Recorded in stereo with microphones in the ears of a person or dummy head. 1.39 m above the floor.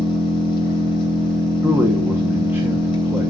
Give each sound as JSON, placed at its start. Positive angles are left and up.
{"t": 0.0, "sound": "an engine running", "side_deg": 30, "distance_m": 6.0}
{"t": 1.6, "sound": "a man speaking", "side_deg": -15, "distance_m": 1.3}